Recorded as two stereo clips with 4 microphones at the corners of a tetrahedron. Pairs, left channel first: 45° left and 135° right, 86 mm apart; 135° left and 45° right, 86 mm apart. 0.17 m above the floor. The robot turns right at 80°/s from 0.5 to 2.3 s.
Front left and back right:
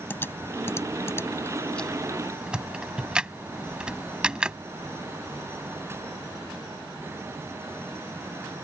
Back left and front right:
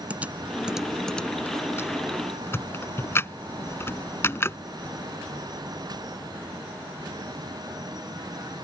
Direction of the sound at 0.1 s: 10° left.